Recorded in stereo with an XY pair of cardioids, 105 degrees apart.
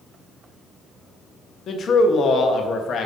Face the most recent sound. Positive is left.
turn(degrees=55)